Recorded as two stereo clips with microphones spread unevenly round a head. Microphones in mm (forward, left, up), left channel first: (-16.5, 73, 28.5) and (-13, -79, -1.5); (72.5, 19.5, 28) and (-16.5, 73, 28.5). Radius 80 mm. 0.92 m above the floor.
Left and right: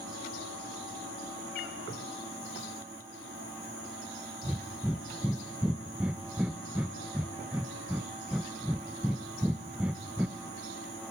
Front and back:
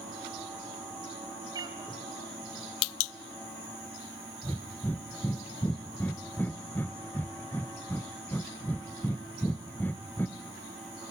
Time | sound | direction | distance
1.5 | a cat meowing | 100° left | 2.5 m
4.4 | breathing | 60° right | 0.8 m